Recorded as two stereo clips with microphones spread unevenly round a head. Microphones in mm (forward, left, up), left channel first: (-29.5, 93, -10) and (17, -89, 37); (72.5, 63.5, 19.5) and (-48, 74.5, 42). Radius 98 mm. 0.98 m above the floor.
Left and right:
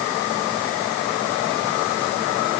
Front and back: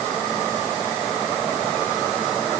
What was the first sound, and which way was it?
Only background noise.